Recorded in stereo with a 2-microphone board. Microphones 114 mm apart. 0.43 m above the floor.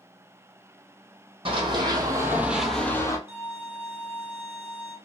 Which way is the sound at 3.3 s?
20° right (ahead or behind).